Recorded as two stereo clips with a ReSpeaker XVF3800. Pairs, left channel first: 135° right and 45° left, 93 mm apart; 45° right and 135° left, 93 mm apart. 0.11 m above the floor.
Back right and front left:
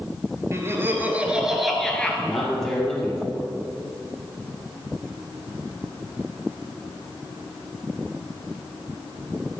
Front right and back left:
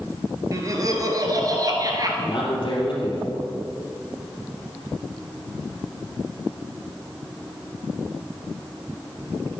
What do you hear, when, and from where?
0.5 s laughter: 95° left, 1.8 m; by 2.1 s 155° left, 1.6 m
2.2 s a man speaking: 55° right, 2.5 m